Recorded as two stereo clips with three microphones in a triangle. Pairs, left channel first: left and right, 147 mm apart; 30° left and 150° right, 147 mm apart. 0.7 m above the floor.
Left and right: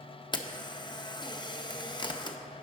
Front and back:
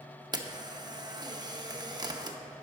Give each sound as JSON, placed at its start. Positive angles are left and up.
{"t": 0.3, "sound": "a camera shutter", "azimuth_deg": 150, "distance_m": 0.5}